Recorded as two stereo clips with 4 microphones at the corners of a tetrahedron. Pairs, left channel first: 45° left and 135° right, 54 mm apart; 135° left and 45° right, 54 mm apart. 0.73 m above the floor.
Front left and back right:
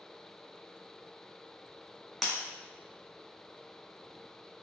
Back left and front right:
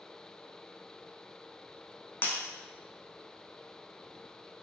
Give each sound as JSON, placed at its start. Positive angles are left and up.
{"t": 2.2, "sound": "breaking glass", "azimuth_deg": 130, "distance_m": 0.7}